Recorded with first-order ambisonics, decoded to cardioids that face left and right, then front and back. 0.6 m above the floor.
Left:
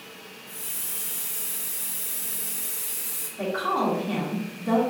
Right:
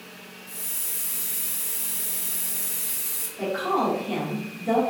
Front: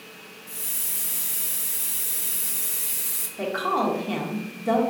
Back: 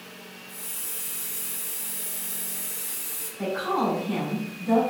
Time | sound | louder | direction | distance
0.5 | a hiss | right 1 dB, front 5 dB | 15° right | 0.7 m
3.4 | a woman speaking | right 1 dB, front 2 dB | 5° left | 1.5 m